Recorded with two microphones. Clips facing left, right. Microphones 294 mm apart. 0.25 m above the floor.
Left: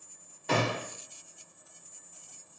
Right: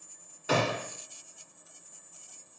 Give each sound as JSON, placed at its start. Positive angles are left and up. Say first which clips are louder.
{"t": 0.5, "sound": "a gunshot", "louder": "right 1 dB", "side_deg": -5, "distance_m": 0.8}